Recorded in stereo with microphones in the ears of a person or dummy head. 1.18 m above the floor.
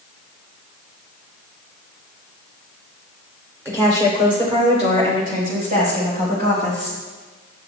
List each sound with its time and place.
3.6 s a woman speaking: 20° right (ahead or behind), 3 m; by 7.0 s 60° right (ahead or behind), 5 m